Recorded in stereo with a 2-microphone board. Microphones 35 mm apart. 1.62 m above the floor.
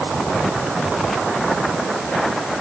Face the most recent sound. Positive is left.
No sound to turn to.